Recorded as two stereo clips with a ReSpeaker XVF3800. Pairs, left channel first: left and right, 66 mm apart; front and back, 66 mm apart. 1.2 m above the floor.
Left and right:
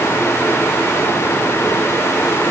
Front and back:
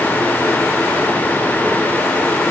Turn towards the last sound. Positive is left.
No sound to turn to.